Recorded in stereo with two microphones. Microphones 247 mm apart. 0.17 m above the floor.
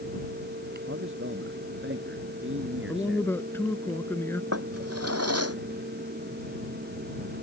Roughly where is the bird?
I don't hear a bird.